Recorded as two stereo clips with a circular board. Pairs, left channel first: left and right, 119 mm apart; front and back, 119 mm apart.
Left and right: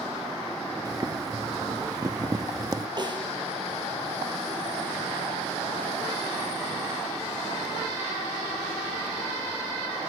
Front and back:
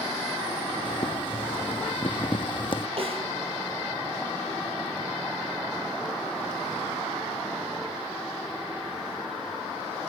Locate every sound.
0.8 s boiling: 35° right, 0.9 m
3.0 s a snare drum: 140° right, 5.5 m